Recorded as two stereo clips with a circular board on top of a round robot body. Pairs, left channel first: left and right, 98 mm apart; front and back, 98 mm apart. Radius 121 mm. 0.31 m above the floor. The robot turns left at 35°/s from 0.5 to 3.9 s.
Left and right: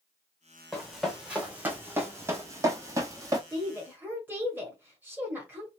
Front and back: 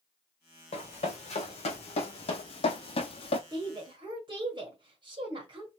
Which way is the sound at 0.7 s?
Straight ahead.